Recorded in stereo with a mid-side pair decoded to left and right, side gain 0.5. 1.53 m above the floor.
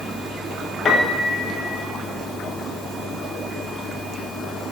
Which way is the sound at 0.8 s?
40° left.